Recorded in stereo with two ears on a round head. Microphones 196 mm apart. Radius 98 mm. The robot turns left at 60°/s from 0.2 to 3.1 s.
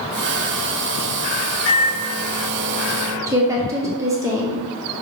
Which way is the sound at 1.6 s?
100° left.